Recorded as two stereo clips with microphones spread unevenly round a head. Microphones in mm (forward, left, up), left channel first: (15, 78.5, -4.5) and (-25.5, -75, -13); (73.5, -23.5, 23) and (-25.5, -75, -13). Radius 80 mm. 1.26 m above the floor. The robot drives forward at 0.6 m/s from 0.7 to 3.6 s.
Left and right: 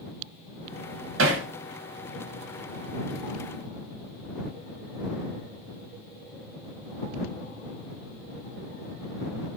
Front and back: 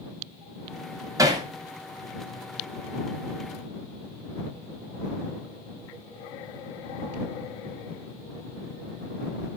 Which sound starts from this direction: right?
Hammering, at 1.2 s.